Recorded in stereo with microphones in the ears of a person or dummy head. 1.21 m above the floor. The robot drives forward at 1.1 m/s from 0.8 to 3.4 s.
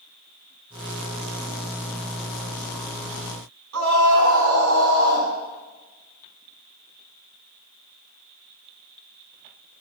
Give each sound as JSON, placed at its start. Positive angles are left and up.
{"t": 3.7, "sound": "a scream", "side_deg": -75, "distance_m": 8.5}